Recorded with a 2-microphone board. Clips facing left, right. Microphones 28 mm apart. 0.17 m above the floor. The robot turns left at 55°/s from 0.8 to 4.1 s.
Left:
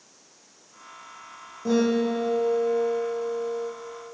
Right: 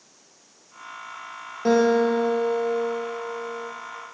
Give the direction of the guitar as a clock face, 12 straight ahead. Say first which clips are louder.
Right 4 dB; 3 o'clock.